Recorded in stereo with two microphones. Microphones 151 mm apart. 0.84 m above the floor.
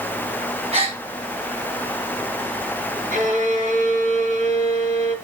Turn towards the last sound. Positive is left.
turn(degrees=-55)  # may be behind; listen again after turning